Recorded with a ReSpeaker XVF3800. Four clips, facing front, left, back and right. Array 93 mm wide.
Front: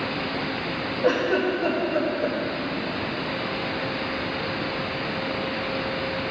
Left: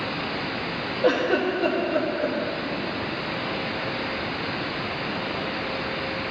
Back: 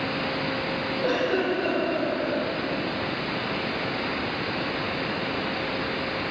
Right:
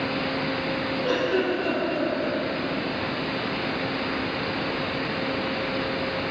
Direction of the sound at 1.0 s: 80° left.